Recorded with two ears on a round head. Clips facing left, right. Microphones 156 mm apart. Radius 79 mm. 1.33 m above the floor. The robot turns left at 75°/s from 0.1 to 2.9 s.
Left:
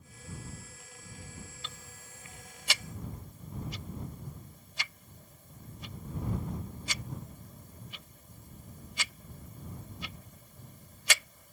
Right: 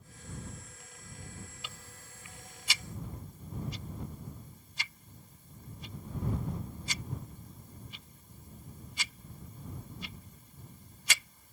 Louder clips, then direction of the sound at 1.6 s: Left 1 dB; 10° right (ahead or behind).